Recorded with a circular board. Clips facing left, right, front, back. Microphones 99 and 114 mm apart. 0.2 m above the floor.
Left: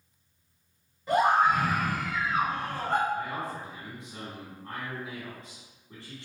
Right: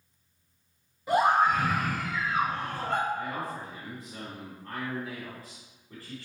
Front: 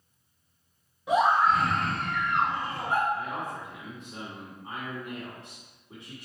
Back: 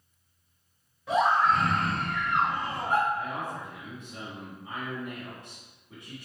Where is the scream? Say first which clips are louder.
Even, front 1 dB; 30° right, 1.6 m; by 3.0 s 120° left, 2.5 m.